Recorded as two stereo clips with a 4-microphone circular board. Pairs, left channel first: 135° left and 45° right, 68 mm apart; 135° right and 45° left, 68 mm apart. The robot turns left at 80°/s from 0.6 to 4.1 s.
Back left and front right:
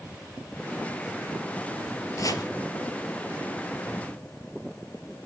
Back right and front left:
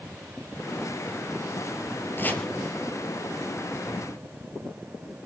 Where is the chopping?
170° left, 3 m; by 2.5 s 145° left, 3 m.